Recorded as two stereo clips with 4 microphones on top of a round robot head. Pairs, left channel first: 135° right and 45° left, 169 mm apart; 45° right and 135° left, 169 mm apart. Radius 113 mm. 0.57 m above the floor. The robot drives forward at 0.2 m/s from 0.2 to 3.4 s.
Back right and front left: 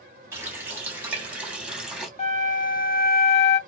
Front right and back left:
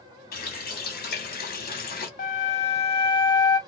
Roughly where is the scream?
No scream in this recording.